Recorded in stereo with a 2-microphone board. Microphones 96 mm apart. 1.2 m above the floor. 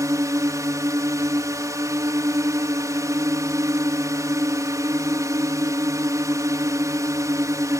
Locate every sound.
0.0 s a drone: 35° right (ahead or behind)